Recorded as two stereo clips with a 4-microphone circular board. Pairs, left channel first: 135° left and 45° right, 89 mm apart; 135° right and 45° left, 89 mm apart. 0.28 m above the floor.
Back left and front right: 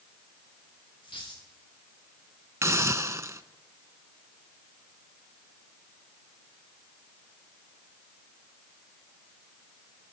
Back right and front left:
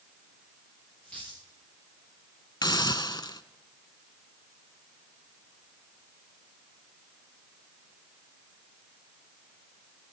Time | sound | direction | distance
1.0 | a dropped coin | 150° left | 5.5 m
2.6 | a hiss | 100° right | 0.6 m